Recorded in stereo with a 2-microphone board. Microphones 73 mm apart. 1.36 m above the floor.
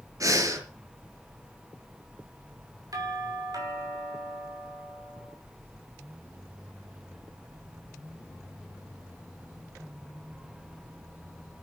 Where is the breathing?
55° right (ahead or behind), 4 m.